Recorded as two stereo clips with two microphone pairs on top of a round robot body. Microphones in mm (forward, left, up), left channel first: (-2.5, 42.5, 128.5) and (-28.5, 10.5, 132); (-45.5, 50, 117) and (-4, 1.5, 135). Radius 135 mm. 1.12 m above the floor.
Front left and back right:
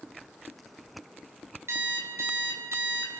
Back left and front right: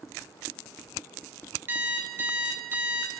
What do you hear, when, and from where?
1.7 s an alarm clock: 105° right, 3.5 m